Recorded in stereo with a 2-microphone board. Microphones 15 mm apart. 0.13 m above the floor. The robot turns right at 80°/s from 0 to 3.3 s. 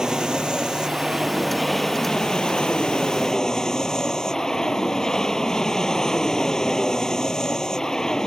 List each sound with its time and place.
0.0 s an aircraft: 125° right; by 8.3 s 140° left